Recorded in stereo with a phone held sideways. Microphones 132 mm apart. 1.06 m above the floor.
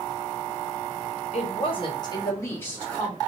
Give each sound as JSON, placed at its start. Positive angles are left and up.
{"t": 1.3, "sound": "a woman speaking", "side_deg": 50, "distance_m": 1.1}